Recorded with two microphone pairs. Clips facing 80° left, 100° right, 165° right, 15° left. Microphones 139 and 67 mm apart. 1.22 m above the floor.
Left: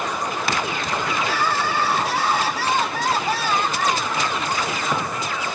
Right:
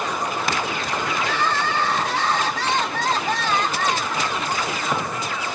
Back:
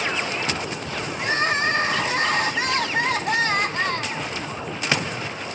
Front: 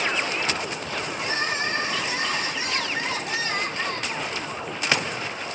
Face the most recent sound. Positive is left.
turn(degrees=160)